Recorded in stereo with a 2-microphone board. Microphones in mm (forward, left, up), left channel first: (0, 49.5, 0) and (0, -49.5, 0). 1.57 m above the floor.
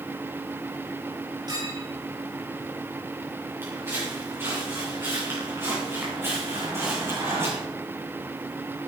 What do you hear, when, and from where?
1.5 s a clink: 40° right (ahead or behind), 8 m
3.6 s footsteps: 25° right (ahead or behind), 7.5 m